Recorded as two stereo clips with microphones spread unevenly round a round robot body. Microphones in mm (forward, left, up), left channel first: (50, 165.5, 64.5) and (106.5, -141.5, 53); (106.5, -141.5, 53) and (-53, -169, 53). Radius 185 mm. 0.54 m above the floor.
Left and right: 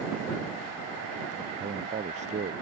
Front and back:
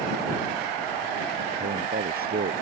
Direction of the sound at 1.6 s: 150° right.